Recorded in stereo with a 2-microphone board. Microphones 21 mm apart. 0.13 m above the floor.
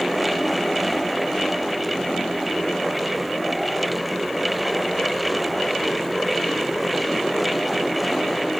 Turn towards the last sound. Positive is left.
No sound to turn to.